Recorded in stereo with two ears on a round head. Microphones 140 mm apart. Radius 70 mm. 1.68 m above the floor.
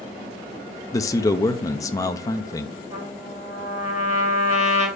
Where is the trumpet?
20° right (ahead or behind), 3.5 m.